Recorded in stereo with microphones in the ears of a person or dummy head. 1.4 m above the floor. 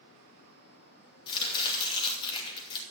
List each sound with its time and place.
1.3 s chopping: 30° left (ahead or behind), 2 m